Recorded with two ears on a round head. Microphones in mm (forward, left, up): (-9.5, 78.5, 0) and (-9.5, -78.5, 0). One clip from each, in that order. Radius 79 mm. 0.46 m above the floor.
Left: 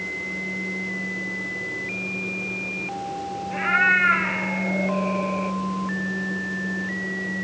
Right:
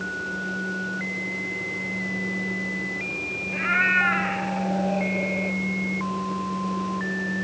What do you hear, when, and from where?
3.5 s a cat meowing: 5° left (ahead or behind), 2 m